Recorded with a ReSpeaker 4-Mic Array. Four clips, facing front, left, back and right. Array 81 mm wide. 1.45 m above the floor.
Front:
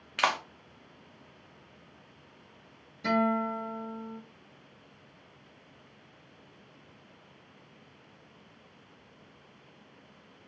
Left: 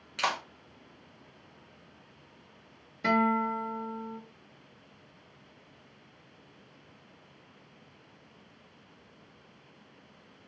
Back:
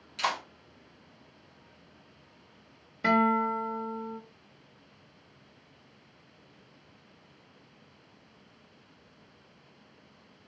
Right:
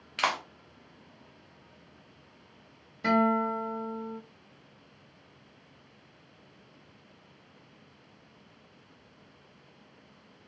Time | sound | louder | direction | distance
0.2 | a clap | right 2 dB, front 3 dB | 15° right | 0.9 m
3.0 | a guitar | right 1 dB, back 3 dB | straight behind | 1.1 m